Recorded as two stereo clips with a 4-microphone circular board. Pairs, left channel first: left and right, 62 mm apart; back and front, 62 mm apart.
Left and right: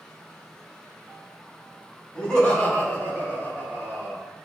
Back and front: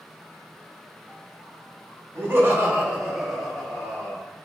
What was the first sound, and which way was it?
Laughter, 30° left.